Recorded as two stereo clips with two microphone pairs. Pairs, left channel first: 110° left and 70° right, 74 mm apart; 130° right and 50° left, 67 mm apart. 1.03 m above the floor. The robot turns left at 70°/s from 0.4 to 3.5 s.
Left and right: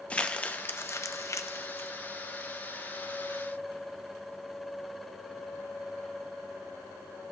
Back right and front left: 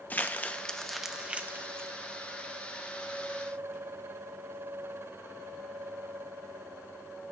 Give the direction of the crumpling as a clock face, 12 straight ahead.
6 o'clock.